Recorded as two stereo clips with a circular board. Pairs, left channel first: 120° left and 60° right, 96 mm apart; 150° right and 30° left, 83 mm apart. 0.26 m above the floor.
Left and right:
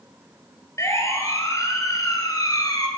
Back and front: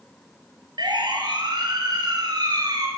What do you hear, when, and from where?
0.8 s a siren: 60° left, 6 m; by 2.9 s 70° left, 5.5 m